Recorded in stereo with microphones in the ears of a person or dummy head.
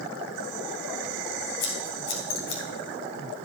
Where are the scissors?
60° left (ahead or behind), 3.5 m.